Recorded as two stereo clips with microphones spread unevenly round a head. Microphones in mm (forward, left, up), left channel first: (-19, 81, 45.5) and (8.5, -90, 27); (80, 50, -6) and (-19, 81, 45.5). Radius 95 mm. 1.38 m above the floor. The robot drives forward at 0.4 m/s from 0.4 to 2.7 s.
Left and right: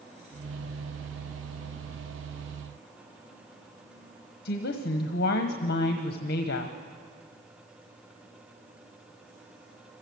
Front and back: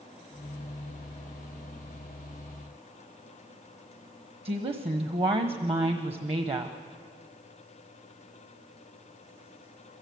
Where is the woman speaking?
130° left, 1.2 m.